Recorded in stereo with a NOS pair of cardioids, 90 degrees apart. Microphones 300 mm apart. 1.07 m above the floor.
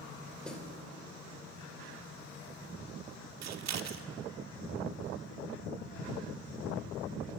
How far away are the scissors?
About 1.4 m.